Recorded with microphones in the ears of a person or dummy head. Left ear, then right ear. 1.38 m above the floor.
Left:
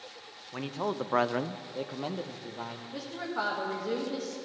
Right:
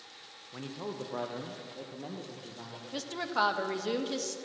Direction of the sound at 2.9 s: 80° right.